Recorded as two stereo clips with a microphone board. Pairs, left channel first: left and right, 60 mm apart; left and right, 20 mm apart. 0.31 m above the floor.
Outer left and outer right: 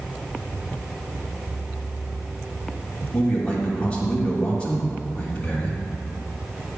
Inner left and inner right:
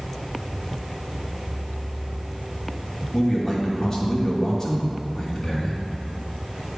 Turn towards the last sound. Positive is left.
turn(degrees=20)  # may be behind; listen again after turning